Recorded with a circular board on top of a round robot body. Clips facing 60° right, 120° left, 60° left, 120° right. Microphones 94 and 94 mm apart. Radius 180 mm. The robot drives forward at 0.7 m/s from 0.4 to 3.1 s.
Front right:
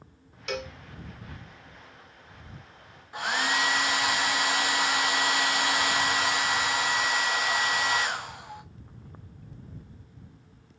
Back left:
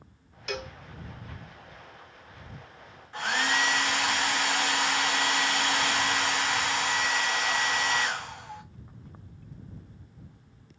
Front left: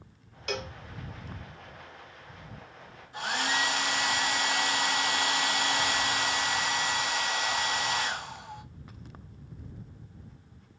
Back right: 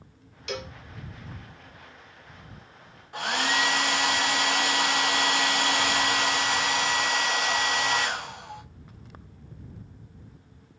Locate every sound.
0.5 s a cowbell: 25° left, 1.4 m; by 0.7 s 30° left, 1.3 m
3.1 s a hair dryer: 140° right, 1.1 m